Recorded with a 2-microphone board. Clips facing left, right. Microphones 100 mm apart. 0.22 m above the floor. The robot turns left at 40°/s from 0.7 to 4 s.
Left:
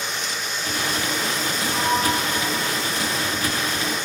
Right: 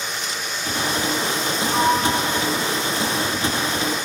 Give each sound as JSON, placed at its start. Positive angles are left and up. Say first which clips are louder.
{"t": 1.7, "sound": "a sliding door", "louder": "right 3 dB", "side_deg": -45, "distance_m": 0.6}